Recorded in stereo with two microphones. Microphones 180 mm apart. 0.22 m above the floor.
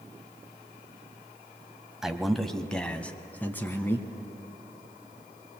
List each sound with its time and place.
2.0 s a man speaking: 5° right (ahead or behind), 0.9 m; by 4.1 s 10° left (ahead or behind), 1.7 m